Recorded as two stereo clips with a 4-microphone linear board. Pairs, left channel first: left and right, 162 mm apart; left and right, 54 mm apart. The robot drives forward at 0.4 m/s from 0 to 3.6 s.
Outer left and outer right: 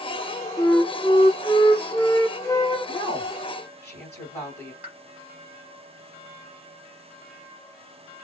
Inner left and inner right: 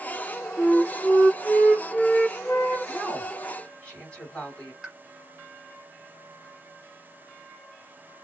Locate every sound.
0.6 s a flute: 25° left (ahead or behind), 1.2 m; by 2.8 s 15° left (ahead or behind), 1.8 m
2.9 s a woman speaking: 15° left (ahead or behind), 2 m
4.8 s a pop: 10° right (ahead or behind), 1.0 m